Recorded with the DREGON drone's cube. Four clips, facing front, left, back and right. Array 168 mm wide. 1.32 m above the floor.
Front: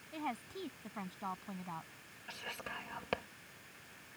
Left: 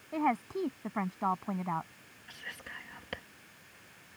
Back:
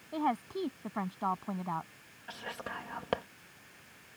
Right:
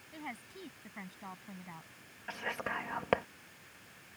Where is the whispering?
115° right.